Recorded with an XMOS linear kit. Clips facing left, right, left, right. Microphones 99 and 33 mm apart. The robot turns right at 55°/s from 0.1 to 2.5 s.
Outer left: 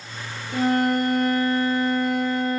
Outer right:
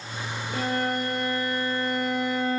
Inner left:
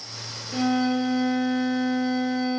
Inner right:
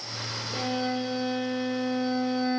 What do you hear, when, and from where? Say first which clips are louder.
0.5 s a violin: outer left 7 dB, inner left 7 dB; 90° left, 3.5 m; by 2.6 s 160° right, 3.5 m